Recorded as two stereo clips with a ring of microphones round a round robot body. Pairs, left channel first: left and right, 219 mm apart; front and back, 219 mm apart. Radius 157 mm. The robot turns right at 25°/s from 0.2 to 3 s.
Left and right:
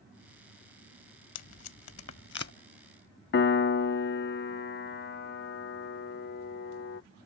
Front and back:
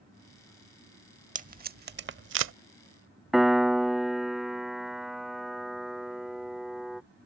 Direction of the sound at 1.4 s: 120° left.